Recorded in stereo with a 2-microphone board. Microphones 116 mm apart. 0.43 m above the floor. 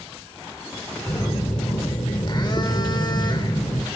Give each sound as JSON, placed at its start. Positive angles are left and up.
{"t": 1.1, "sound": "a phone buzzing", "side_deg": 45, "distance_m": 1.3}